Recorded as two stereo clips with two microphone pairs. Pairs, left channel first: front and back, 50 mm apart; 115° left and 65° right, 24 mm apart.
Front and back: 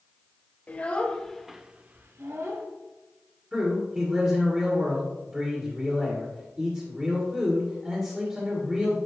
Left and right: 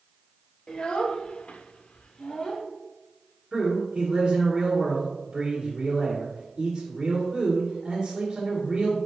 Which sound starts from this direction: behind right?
A man speaking, at 3.5 s.